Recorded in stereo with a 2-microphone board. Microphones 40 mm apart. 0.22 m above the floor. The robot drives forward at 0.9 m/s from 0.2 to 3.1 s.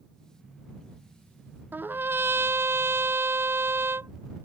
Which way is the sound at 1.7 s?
50° right (ahead or behind).